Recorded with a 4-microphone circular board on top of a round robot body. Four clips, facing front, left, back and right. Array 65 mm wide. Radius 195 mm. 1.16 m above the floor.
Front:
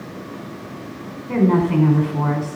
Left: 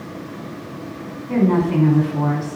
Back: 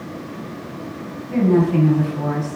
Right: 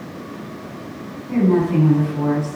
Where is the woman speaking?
25° left, 5 m.